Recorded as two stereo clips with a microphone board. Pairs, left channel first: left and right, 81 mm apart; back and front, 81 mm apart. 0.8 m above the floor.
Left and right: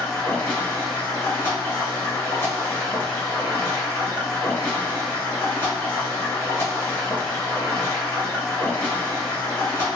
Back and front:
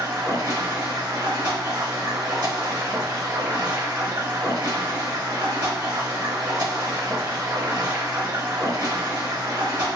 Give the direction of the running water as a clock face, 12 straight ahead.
11 o'clock.